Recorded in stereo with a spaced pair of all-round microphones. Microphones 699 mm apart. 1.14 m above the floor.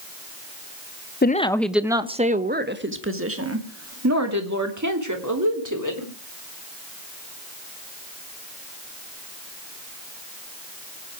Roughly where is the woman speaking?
Centre.